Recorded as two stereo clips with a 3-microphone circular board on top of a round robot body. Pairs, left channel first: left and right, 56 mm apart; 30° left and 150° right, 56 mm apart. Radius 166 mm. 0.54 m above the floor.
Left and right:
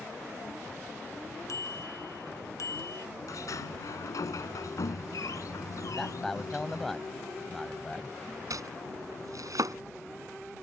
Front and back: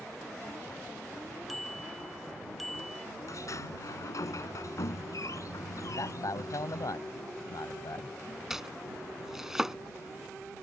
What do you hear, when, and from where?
1.5 s a bicycle bell: 120° left
3.3 s a sliding door: 60° left
5.9 s a man speaking: 5° left
8.5 s chopping: 70° right